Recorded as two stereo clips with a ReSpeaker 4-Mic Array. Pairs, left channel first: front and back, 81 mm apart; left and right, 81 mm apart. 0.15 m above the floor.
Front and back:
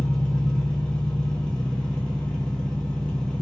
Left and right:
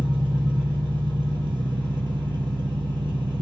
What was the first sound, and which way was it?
An engine running, 80° right.